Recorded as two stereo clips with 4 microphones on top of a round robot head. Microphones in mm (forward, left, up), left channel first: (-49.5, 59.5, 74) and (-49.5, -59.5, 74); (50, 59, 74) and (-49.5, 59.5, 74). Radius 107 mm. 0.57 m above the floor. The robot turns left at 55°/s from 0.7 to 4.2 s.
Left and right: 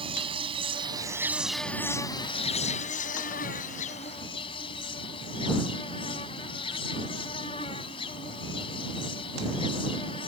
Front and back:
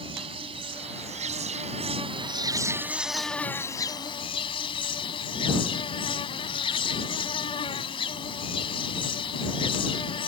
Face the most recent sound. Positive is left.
turn(degrees=35)